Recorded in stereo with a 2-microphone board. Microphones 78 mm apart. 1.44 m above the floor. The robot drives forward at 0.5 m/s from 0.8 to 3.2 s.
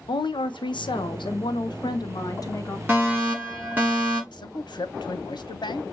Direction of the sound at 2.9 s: 20° right (ahead or behind).